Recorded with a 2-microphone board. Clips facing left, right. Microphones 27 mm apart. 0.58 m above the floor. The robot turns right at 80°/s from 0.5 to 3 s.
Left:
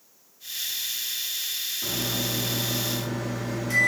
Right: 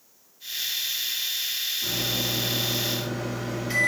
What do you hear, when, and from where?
1.8 s a microwave: 140° left, 0.8 m; by 3.9 s 125° right, 0.8 m